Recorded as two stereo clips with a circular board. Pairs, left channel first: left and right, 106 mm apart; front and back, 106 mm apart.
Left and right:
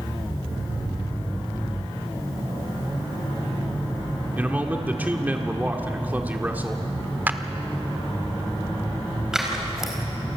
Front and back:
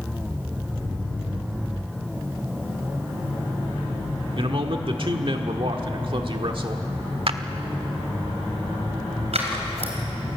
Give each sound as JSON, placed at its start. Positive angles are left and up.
{"t": 4.4, "sound": "a man speaking", "azimuth_deg": -160, "distance_m": 1.6}
{"t": 7.3, "sound": "a clap", "azimuth_deg": -160, "distance_m": 1.1}
{"t": 9.3, "sound": "scissors", "azimuth_deg": -175, "distance_m": 4.5}